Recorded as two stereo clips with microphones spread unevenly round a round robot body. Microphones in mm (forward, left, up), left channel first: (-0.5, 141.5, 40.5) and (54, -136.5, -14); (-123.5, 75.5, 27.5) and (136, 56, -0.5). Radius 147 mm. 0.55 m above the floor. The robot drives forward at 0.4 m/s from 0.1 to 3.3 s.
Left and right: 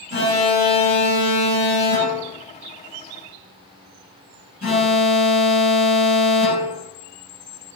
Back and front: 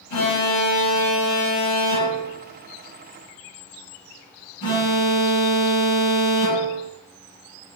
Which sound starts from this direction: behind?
An alarm, at 0.1 s.